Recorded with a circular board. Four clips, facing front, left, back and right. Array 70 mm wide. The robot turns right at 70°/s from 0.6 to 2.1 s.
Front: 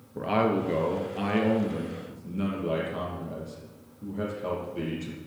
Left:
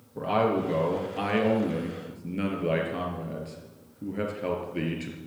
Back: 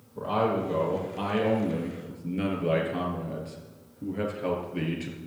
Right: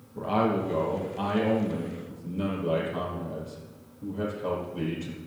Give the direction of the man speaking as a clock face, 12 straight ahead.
11 o'clock.